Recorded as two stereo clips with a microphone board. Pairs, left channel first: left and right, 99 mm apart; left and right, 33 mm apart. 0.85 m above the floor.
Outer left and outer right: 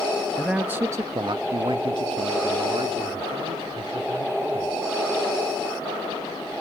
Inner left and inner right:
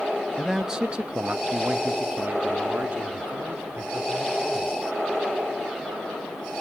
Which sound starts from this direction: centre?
A man speaking, at 0.4 s.